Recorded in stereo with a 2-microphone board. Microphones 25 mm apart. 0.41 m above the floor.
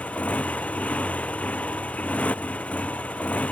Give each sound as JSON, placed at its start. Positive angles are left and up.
{"t": 0.0, "sound": "a motorcycle", "side_deg": 80}